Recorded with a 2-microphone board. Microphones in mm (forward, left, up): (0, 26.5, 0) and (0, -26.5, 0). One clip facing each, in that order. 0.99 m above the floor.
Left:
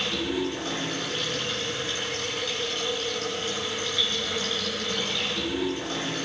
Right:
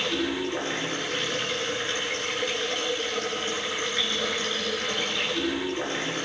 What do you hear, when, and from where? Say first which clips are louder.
0.0 s running water: right 1 dB; 30° right (ahead or behind), 8 m